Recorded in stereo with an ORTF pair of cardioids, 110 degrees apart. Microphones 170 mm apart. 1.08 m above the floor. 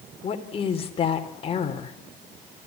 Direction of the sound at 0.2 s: 35° left.